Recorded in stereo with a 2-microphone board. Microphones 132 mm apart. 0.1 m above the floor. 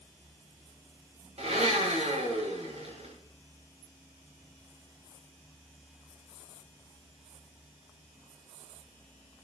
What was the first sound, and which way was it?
A blender, 60° right (ahead or behind).